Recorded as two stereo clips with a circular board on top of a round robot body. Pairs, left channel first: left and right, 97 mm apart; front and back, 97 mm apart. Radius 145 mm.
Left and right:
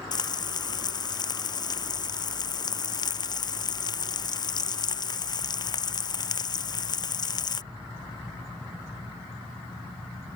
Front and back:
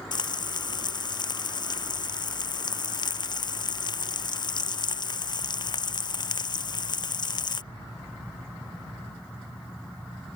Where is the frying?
45° left.